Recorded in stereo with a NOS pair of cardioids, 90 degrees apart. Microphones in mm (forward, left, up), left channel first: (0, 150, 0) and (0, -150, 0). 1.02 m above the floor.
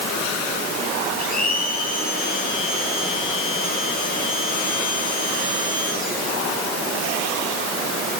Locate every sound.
1.2 s a blender: 30° left, 8 m